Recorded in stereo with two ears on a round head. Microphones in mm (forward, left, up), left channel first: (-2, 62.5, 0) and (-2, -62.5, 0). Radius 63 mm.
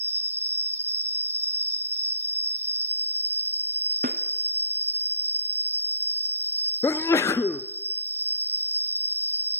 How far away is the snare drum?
About 1.4 m.